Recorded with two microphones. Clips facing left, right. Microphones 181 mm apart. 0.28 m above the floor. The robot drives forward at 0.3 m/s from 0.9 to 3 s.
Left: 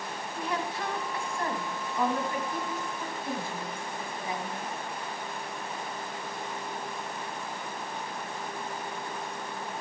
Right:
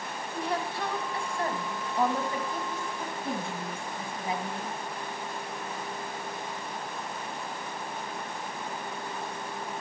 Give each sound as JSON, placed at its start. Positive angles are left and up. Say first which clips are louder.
{"t": 0.3, "sound": "a woman speaking", "louder": "right 1 dB", "side_deg": -30, "distance_m": 2.0}